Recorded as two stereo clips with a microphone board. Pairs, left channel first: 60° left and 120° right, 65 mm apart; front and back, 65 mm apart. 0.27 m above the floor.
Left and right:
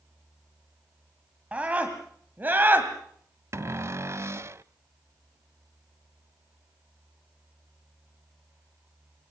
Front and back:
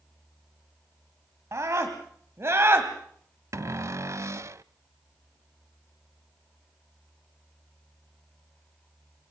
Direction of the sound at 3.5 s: 155° right.